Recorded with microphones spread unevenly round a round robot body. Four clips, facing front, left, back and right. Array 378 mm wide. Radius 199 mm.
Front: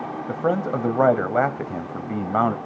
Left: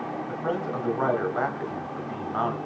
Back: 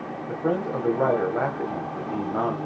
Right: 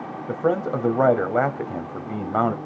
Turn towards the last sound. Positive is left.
turn(degrees=-45)